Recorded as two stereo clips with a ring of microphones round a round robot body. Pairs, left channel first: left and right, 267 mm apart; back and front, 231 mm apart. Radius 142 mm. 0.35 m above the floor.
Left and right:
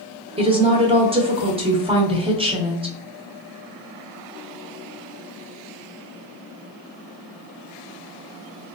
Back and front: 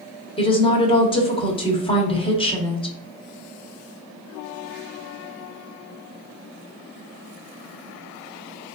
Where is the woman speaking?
140° right, 1.0 m.